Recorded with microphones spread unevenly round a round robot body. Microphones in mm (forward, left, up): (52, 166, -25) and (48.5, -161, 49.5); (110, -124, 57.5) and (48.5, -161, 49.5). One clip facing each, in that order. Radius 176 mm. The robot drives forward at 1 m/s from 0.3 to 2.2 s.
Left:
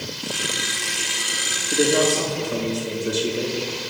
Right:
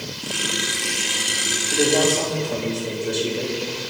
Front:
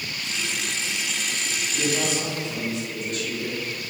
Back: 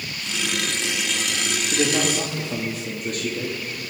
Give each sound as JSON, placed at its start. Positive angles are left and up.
{"t": 1.7, "sound": "a man speaking", "azimuth_deg": 160, "distance_m": 1.8}